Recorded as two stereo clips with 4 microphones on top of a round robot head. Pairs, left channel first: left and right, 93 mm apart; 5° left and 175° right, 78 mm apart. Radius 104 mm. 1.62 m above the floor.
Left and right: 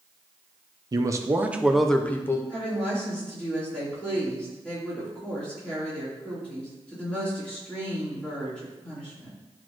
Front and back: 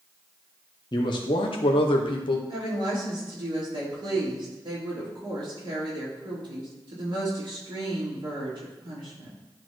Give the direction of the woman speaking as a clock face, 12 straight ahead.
6 o'clock.